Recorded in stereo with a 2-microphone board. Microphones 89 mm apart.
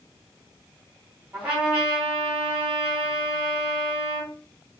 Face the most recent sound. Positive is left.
turn(degrees=-20)  # may be behind; listen again after turning